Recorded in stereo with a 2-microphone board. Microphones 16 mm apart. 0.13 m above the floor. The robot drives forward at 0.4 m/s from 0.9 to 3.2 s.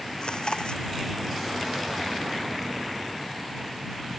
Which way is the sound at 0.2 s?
60° left (ahead or behind).